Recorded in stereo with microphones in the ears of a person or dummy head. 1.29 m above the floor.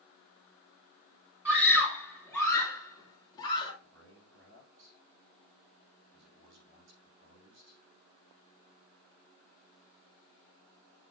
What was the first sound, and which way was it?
A scream, 5° right (ahead or behind).